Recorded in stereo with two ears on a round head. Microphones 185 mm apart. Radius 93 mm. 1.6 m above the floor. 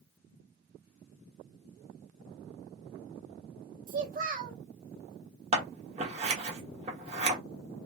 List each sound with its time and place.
3.9 s a child speaking: 40° right (ahead or behind), 0.9 m
5.5 s scissors: 30° right (ahead or behind), 1.0 m